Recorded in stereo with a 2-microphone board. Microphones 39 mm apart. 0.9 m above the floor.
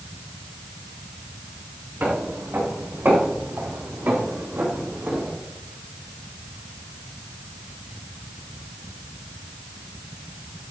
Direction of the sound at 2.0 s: 70° right (ahead or behind).